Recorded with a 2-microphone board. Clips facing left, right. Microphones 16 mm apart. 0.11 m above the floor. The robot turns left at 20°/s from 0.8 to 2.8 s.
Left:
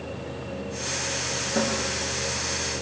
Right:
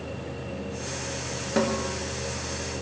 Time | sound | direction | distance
1.6 | a snare drum | 70° right (ahead or behind) | 6 m